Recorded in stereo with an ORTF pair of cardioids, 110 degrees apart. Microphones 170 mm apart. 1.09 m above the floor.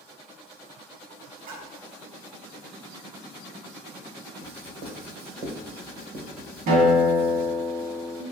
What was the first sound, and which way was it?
A splash, 70° right.